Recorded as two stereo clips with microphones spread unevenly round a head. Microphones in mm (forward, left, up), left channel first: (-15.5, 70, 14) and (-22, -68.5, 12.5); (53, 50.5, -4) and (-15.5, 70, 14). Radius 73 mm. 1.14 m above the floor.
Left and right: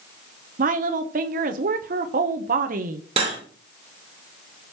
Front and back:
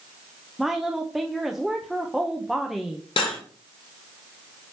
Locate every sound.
0.6 s a woman speaking: 100° right, 0.7 m
3.2 s cutlery clinking: 40° right, 1.9 m